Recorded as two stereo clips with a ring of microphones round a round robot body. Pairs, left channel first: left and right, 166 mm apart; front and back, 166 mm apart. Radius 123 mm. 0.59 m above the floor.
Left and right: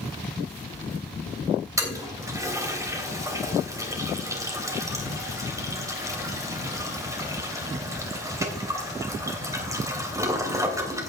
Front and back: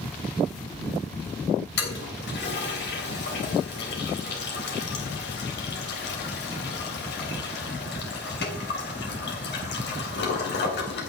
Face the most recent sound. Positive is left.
turn(degrees=-20)